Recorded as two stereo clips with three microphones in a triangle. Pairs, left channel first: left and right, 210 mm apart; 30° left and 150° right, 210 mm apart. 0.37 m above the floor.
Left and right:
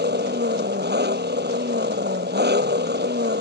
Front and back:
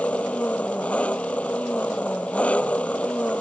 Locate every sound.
0.0 s an engine running: 55° right